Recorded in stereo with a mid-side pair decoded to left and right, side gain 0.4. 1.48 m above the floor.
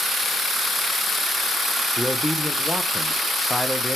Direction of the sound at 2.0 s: Straight ahead.